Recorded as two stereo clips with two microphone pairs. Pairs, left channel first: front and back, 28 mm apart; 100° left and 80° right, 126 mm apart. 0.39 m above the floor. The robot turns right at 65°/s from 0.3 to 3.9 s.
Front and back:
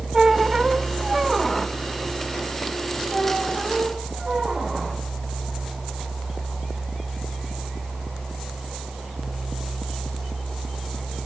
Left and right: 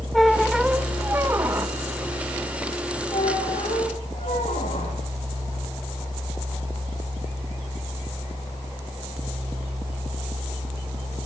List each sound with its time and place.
0.1 s a squeak: 175° right, 0.7 m; by 1.8 s 80° right, 0.7 m
3.1 s a squeak: 65° left, 8 m; by 5.0 s 115° left, 8 m